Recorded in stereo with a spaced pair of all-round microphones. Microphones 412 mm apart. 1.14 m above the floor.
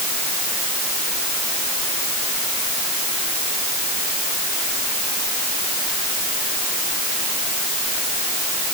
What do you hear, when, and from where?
Only background noise.